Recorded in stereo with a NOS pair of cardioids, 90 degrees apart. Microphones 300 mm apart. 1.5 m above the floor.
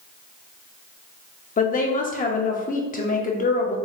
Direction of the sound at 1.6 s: 30° left.